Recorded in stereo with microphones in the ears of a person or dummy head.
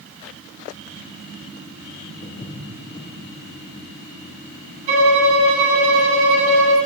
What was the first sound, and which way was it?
Footsteps, 30° left (ahead or behind).